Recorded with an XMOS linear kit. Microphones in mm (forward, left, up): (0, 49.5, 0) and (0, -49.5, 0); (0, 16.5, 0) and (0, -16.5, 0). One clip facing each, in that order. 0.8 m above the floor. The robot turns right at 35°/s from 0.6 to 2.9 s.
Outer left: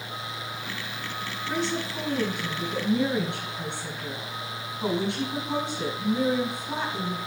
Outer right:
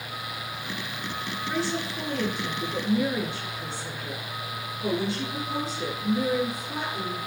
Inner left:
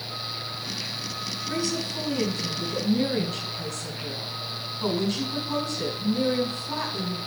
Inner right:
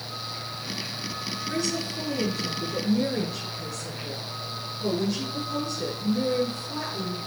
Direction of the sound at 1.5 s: 15° left.